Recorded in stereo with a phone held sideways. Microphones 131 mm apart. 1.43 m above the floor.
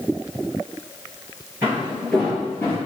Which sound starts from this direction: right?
Footsteps, at 1.6 s.